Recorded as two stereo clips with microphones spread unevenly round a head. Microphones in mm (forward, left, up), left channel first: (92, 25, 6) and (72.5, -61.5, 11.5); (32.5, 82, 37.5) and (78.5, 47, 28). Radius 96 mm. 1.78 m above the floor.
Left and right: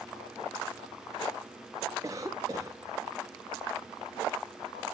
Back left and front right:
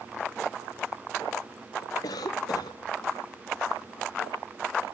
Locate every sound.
2.0 s a cough: 175° right, 0.5 m